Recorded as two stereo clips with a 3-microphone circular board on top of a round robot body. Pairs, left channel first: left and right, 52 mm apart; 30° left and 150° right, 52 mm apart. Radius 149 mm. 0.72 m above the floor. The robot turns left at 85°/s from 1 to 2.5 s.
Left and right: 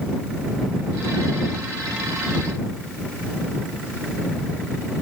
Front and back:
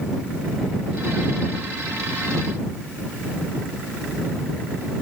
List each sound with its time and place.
Only background noise.